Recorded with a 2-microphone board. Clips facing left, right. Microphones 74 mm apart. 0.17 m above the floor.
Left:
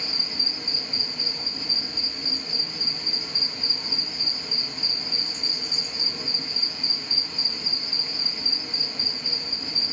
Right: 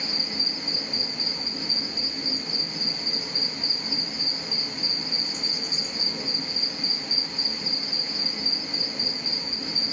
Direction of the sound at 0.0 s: 50° right (ahead or behind).